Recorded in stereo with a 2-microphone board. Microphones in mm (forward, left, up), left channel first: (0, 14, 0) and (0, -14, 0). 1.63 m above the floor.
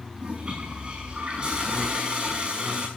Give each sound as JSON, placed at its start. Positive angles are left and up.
{"t": 0.2, "sound": "a toilet flushing", "side_deg": -35, "distance_m": 6.5}